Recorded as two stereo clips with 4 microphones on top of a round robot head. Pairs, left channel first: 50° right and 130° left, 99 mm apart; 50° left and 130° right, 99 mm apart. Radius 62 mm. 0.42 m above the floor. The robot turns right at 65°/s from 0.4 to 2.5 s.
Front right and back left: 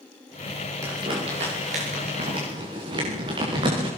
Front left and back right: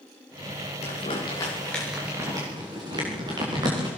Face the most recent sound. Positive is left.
turn(degrees=180)